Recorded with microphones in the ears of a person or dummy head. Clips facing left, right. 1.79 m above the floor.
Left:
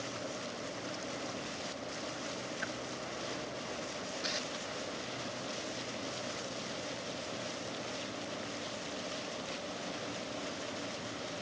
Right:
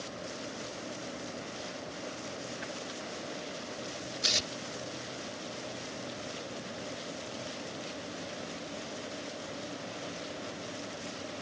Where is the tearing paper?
45° right (ahead or behind).